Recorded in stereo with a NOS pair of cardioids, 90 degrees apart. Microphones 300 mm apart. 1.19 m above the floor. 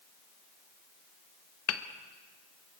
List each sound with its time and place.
1.7 s hammering: 55° left, 1.4 m